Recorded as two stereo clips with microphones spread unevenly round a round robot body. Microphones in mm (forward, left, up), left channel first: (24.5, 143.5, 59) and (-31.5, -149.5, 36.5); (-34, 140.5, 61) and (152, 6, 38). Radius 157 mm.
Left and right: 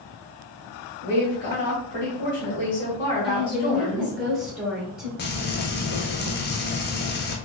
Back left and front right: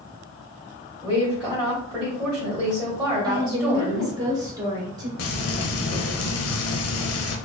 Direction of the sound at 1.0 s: 30° left.